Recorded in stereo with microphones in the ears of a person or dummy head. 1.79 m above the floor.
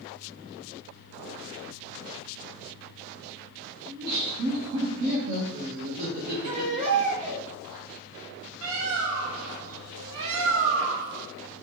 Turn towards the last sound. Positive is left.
turn(degrees=-65)  # may be behind; listen again after turning